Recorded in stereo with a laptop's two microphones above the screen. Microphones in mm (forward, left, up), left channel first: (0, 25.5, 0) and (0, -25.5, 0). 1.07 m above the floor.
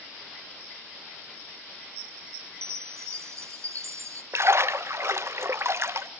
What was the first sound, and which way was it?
A chime, 65° right (ahead or behind).